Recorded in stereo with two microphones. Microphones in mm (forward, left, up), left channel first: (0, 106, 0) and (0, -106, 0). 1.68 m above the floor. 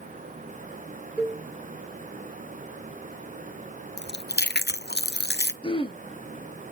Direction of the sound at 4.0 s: 55° left (ahead or behind).